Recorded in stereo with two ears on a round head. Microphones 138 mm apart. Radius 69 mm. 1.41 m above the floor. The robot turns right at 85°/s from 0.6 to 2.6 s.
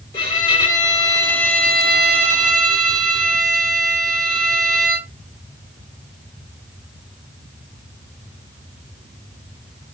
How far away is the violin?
About 1.0 m.